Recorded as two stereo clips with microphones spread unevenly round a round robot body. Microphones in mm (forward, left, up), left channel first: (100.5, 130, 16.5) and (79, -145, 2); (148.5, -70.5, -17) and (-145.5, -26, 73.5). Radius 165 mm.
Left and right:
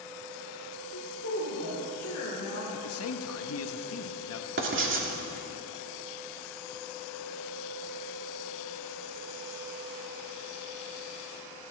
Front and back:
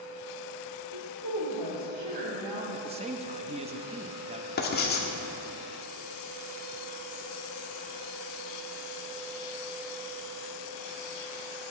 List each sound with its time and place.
0.9 s a woman speaking: 140° left, 1.8 m
2.7 s a man speaking: 90° left, 0.7 m
4.6 s writing: 55° right, 1.8 m